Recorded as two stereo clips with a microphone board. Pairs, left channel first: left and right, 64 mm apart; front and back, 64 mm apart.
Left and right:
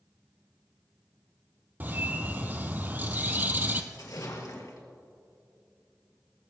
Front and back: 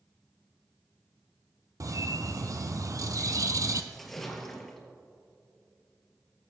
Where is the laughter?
No laughter in this recording.